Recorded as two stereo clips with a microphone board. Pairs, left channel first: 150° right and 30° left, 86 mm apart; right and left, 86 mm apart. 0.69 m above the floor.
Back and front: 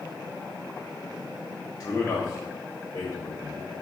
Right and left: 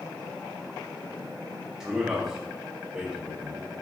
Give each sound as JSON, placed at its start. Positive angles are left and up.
{"t": 1.8, "sound": "a man speaking", "azimuth_deg": 165, "distance_m": 0.9}